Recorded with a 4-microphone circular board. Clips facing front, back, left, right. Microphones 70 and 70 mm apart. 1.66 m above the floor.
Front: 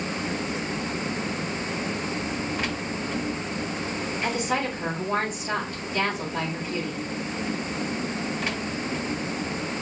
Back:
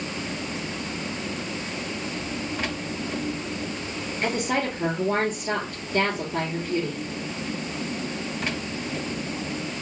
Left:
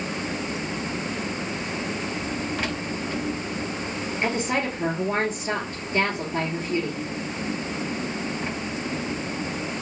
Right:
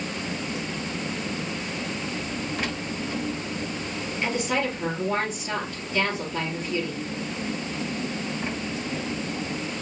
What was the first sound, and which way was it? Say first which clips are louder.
A woman speaking: back 2 dB, left 1 dB; 140° left.